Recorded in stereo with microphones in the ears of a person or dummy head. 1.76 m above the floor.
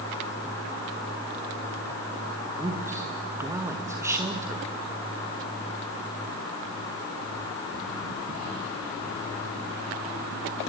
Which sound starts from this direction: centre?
A man speaking, at 2.6 s.